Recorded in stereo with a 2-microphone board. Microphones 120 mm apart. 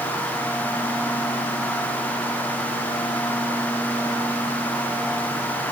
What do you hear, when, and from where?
Only background noise.